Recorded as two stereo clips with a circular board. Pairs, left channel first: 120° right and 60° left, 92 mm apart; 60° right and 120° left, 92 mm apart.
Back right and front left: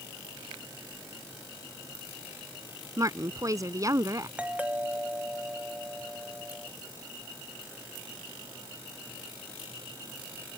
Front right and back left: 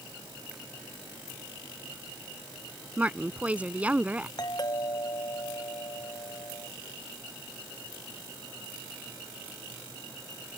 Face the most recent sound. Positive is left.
turn(degrees=-15)